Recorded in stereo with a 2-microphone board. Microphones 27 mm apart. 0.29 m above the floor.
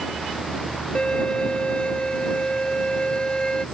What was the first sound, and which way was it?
A violin, 35° left (ahead or behind).